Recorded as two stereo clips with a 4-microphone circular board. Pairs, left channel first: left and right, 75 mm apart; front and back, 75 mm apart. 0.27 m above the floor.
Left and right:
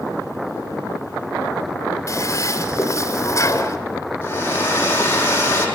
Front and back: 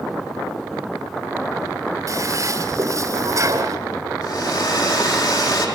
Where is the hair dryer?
30° left, 5 m.